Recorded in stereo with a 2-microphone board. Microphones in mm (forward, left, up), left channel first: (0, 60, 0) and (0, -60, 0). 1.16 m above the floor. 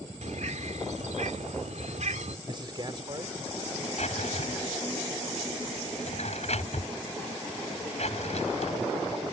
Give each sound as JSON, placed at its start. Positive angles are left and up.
{"t": 0.2, "sound": "a bird", "side_deg": -75}
{"t": 2.5, "sound": "a man speaking", "side_deg": -40}
{"t": 4.0, "sound": "a drawer", "side_deg": 60}